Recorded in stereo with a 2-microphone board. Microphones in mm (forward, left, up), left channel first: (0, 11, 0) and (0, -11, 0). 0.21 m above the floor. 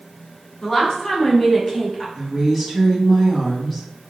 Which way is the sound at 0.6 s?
30° left (ahead or behind).